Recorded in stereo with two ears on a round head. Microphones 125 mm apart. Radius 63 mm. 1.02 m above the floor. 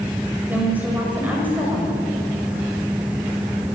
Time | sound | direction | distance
0.5 | a woman speaking | 10° right (ahead or behind) | 6 m